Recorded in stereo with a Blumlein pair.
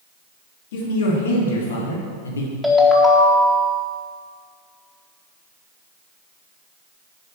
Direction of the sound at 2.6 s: Straight ahead.